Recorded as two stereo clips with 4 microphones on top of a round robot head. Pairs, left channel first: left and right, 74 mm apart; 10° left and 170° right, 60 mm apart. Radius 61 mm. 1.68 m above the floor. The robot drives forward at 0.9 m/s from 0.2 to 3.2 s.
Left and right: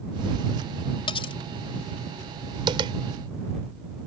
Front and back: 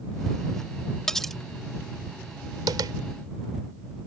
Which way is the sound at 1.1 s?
90° left.